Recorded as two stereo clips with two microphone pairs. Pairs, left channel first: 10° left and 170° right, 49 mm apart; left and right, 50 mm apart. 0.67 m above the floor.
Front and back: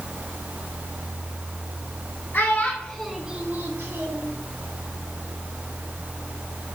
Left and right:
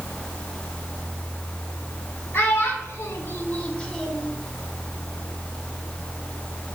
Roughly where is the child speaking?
Ahead left.